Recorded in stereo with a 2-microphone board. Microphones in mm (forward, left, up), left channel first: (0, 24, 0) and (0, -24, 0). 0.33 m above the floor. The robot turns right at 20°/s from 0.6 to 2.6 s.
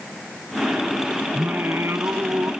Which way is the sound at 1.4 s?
50° right (ahead or behind).